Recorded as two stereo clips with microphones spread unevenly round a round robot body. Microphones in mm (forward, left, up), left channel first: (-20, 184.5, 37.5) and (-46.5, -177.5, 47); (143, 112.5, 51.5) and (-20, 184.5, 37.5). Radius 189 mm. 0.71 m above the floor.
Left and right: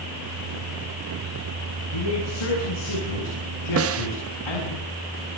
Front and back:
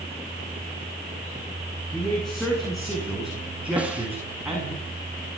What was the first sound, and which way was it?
A man speaking, 65° left.